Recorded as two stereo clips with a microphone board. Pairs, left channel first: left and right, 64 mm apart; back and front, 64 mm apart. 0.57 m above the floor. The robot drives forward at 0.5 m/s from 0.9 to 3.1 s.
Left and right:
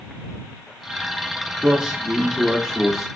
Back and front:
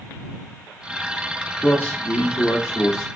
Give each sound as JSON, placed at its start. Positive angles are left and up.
{"t": 1.6, "sound": "a man speaking", "azimuth_deg": -160, "distance_m": 0.8}